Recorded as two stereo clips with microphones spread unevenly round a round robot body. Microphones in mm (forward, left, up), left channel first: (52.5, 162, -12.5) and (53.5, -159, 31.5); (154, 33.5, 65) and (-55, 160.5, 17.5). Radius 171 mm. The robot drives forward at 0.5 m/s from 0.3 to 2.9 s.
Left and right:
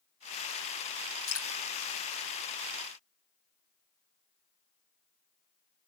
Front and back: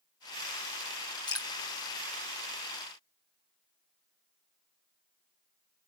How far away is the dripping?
About 3 m.